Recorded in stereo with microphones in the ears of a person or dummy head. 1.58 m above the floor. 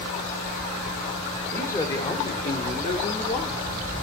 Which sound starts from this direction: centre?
A man speaking, at 1.5 s.